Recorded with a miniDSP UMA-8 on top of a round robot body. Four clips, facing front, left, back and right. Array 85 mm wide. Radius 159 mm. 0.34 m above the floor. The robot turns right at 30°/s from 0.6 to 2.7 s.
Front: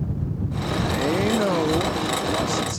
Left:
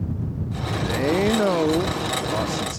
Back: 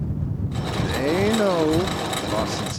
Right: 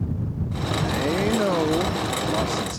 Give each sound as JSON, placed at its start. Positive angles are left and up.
{"t": 0.8, "sound": "a man speaking", "azimuth_deg": 140}